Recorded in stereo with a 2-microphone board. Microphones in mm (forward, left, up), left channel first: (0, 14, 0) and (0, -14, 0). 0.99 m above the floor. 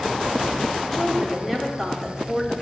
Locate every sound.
0.8 s a woman speaking: 5° left (ahead or behind), 2.5 m